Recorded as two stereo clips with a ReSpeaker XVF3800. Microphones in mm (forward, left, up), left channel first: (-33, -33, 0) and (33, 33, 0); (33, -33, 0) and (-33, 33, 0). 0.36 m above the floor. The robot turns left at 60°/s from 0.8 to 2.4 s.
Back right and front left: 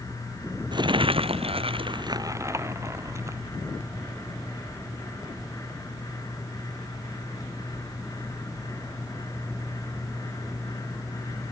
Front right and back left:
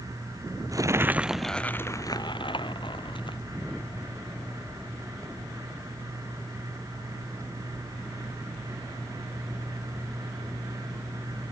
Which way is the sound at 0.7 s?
80° left.